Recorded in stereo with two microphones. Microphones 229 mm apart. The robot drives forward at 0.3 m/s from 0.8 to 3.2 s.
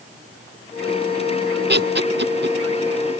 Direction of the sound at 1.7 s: 50° right (ahead or behind).